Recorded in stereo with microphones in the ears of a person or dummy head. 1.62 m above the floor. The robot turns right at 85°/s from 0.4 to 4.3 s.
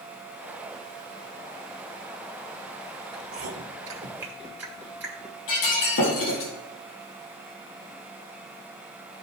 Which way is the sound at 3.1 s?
60° right (ahead or behind).